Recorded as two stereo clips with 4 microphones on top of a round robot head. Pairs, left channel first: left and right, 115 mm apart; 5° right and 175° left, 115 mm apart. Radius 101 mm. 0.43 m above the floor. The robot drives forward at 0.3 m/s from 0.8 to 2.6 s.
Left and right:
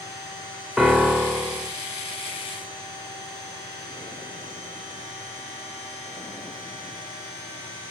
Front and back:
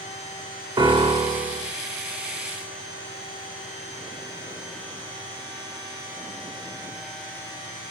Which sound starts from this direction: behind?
A piano, at 0.8 s.